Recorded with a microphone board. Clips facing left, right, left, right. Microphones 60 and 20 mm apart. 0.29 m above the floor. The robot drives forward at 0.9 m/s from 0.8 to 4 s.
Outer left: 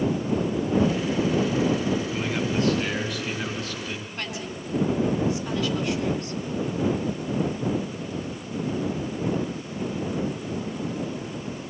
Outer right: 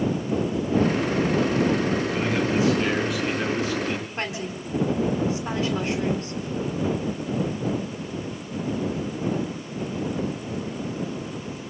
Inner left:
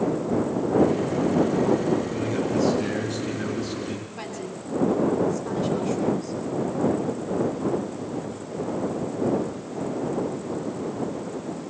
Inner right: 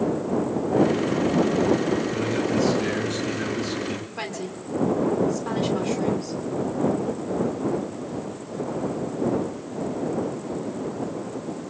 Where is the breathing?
No breathing in this recording.